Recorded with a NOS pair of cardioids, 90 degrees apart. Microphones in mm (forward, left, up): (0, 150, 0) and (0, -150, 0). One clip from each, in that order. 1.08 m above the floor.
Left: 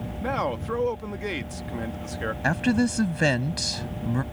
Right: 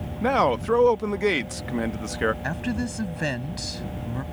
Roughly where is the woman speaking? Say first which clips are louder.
Left 5 dB; ahead left.